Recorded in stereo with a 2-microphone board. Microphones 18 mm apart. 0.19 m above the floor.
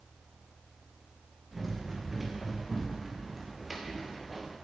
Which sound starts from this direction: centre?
Running footsteps, at 1.5 s.